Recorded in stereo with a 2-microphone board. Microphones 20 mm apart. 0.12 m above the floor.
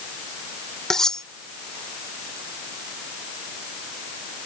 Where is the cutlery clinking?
30° left (ahead or behind).